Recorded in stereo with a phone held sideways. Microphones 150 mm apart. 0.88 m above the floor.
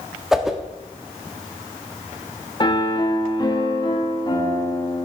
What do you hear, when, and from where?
0.3 s a whoosh: 5° right (ahead or behind), 1.3 m
2.6 s a piano: 30° left (ahead or behind), 1.9 m